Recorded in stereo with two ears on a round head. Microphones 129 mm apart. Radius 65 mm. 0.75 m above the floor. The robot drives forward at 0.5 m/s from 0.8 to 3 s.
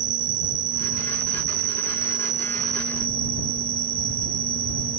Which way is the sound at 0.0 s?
60° right (ahead or behind).